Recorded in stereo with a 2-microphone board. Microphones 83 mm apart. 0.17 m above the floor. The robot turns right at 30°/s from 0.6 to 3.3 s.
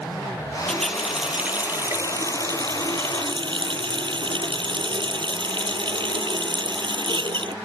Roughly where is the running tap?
Behind.